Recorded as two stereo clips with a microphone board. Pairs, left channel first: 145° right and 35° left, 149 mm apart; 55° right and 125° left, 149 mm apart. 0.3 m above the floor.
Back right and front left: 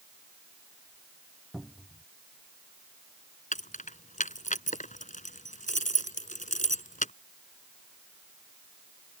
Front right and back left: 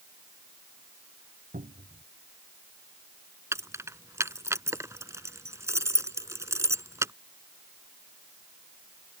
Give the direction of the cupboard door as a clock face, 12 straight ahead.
8 o'clock.